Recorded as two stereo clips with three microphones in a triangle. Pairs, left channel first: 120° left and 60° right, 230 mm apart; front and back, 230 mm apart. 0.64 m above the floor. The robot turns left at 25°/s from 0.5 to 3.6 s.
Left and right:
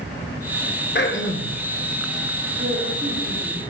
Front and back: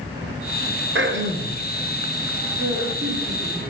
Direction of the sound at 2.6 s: 105° right.